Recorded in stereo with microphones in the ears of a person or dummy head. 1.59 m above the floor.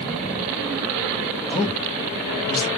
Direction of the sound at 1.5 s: 10° left (ahead or behind).